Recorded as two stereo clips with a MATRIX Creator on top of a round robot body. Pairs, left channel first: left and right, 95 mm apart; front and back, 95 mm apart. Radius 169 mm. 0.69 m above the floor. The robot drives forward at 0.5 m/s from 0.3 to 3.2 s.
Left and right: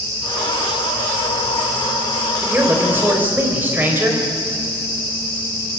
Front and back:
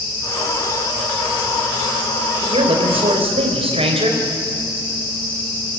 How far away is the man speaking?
About 4 m.